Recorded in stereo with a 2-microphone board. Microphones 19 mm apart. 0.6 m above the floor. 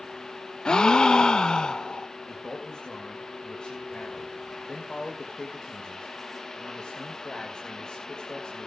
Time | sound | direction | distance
0.7 | a gasp | 45° left (ahead or behind) | 0.6 m
2.3 | a man speaking | 50° left (ahead or behind) | 3 m